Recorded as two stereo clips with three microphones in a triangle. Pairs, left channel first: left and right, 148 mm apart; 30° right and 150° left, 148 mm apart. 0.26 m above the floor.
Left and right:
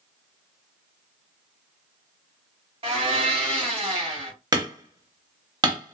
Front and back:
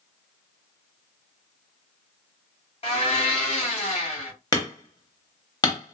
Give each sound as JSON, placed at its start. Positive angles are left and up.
{"t": 2.8, "sound": "a blender", "azimuth_deg": -60, "distance_m": 2.0}
{"t": 4.5, "sound": "hammering", "azimuth_deg": -60, "distance_m": 1.0}